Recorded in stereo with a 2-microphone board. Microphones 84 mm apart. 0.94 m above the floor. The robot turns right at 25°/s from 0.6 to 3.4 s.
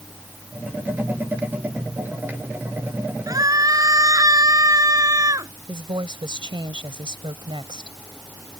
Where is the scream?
45° right (ahead or behind).